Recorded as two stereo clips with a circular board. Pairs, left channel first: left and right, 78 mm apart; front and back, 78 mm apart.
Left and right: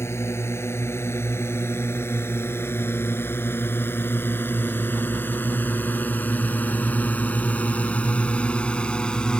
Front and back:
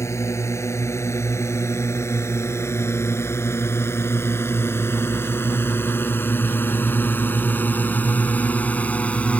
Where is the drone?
45° left; by 9.4 s 35° left.